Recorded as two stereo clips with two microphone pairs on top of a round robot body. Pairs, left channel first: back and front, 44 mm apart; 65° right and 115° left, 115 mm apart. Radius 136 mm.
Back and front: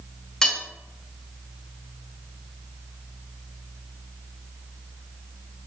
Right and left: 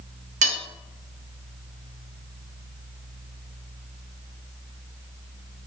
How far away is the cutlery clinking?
About 0.5 m.